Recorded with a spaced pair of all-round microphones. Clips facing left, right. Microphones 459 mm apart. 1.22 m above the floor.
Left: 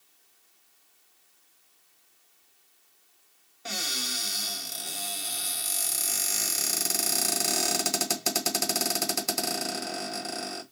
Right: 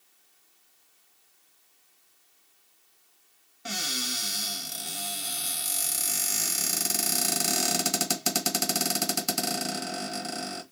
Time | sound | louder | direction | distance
3.6 | a cupboard door | right 2 dB | 30° right (ahead or behind) | 1.2 m